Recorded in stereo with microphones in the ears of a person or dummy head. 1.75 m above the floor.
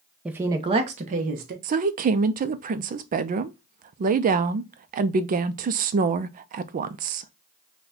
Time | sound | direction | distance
0.2 | a woman speaking | 5° right (ahead or behind) | 0.6 m
1.6 | a woman speaking | 40° right (ahead or behind) | 0.5 m